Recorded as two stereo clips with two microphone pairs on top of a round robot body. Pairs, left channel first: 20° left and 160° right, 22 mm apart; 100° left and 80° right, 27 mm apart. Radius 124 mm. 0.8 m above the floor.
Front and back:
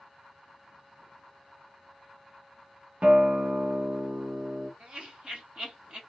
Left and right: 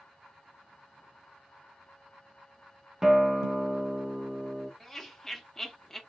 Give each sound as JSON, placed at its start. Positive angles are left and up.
{"t": 3.0, "sound": "a guitar", "azimuth_deg": -175, "distance_m": 1.1}
{"t": 4.8, "sound": "laughter", "azimuth_deg": 165, "distance_m": 2.0}